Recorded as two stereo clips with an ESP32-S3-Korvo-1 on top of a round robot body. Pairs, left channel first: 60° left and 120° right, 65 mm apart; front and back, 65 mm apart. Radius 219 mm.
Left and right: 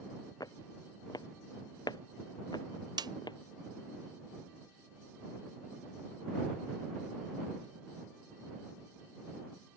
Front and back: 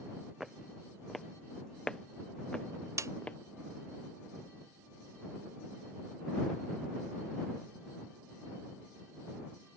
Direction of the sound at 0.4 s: 90° left.